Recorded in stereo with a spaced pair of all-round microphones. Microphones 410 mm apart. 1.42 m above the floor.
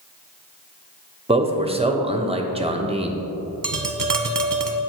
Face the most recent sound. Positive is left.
turn(degrees=-50)  # may be behind; listen again after turning